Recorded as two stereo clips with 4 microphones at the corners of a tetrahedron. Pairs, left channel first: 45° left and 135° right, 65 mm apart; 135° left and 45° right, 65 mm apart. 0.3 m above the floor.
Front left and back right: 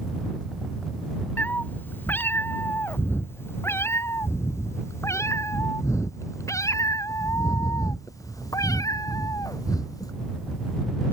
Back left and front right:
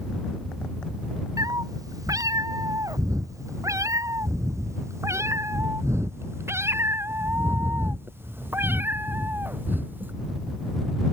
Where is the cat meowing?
20° right; by 10.1 s 15° left.